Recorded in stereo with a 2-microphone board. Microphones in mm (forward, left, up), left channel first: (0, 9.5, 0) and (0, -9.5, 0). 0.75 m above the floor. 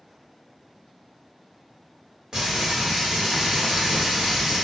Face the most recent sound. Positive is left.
turn(degrees=-35)  # may be behind; listen again after turning